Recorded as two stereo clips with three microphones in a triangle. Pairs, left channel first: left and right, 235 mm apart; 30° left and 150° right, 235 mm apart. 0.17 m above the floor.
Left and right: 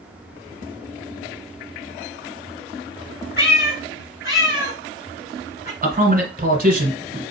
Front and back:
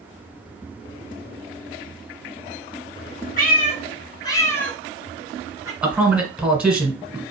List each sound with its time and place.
3.4 s a cat meowing: 70° left, 1.1 m; by 5.7 s 135° left, 1.3 m
5.8 s a man speaking: 65° right, 1.4 m